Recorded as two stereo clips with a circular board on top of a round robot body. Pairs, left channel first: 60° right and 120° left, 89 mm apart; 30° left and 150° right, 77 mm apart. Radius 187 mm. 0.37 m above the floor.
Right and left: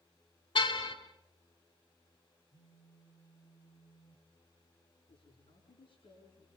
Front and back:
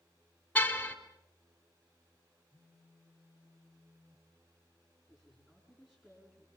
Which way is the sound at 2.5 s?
90° right.